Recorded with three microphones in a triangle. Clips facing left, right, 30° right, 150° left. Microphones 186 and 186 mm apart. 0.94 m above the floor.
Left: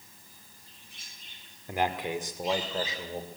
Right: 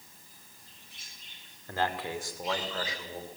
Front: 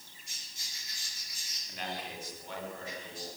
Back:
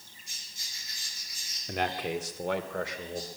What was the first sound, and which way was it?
A man speaking, 165° left.